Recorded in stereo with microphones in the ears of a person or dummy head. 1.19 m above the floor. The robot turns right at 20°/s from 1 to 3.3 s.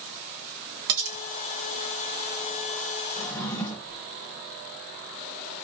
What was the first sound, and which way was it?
Cutlery clinking, 70° right (ahead or behind).